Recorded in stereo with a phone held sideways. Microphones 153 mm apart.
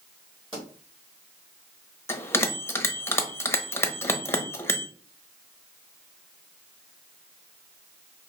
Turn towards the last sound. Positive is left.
turn(degrees=15)  # may be behind; listen again after turning